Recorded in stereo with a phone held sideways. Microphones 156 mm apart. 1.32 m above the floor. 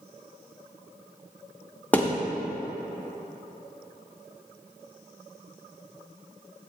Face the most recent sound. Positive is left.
turn(degrees=10)  # may be behind; listen again after turning